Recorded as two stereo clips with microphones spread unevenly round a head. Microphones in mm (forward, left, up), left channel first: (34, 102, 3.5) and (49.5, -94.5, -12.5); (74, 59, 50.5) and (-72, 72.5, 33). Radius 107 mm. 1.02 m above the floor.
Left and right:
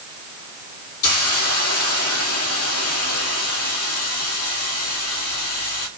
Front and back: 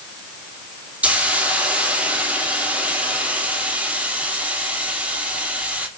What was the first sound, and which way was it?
A hiss, 95° left.